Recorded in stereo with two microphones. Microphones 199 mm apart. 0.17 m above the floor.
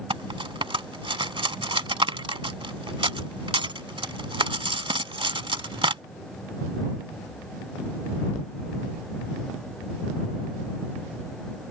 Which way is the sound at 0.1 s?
25° right (ahead or behind).